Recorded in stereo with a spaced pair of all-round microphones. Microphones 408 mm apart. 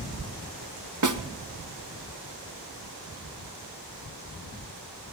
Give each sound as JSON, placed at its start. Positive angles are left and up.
{"t": 1.0, "sound": "a snare drum", "side_deg": -45, "distance_m": 0.8}